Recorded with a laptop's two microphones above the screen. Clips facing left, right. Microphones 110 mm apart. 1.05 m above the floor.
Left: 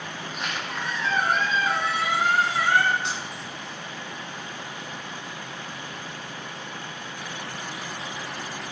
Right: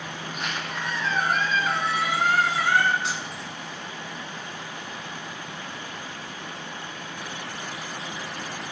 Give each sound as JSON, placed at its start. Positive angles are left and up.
{"t": 0.2, "sound": "a squeak", "side_deg": 0, "distance_m": 2.5}
{"t": 3.0, "sound": "keys jangling", "side_deg": -5, "distance_m": 2.0}